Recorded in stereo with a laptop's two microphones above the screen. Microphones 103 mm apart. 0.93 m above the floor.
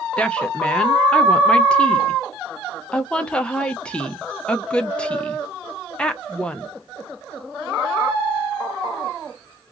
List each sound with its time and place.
0.2 s a woman speaking: 10° left (ahead or behind), 0.5 m